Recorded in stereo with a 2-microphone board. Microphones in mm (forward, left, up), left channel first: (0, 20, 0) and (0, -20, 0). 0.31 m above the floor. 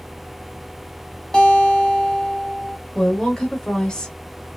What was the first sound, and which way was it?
A guitar, 15° left (ahead or behind).